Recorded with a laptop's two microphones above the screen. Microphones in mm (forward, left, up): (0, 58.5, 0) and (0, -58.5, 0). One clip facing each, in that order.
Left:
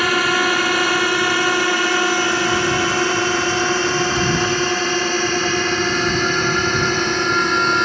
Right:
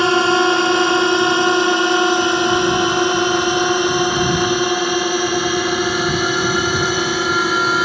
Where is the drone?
25° right (ahead or behind); by 7.9 s 5° right (ahead or behind).